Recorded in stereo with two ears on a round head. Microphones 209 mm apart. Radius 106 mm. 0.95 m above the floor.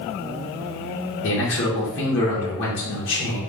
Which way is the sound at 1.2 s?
55° left (ahead or behind).